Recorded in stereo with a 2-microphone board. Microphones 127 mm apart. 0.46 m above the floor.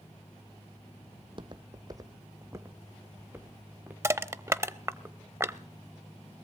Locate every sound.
1.2 s footsteps: 45° right (ahead or behind), 0.9 m; by 3.9 s 15° right (ahead or behind), 2.5 m
4.0 s crushing: 20° right (ahead or behind), 0.6 m